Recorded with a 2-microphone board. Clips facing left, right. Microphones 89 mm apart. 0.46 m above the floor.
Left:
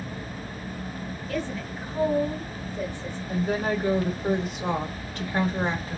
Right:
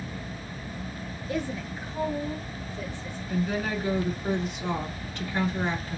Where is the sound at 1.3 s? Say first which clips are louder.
Even; 20° right (ahead or behind), 0.7 m; by 3.2 s 50° left (ahead or behind), 1.4 m.